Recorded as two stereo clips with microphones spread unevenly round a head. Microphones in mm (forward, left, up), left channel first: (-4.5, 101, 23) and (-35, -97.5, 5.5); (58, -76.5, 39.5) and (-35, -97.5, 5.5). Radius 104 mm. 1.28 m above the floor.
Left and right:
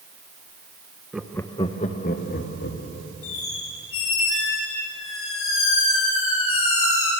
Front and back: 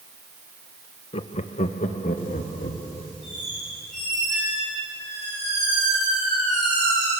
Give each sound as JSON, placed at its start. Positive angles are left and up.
{"t": 1.1, "sound": "laughter", "azimuth_deg": -15, "distance_m": 1.0}
{"t": 3.2, "sound": "a squeak", "azimuth_deg": 100, "distance_m": 6.5}